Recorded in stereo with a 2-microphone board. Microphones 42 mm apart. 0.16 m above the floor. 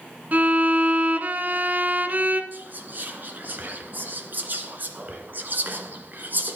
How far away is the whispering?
About 1.8 m.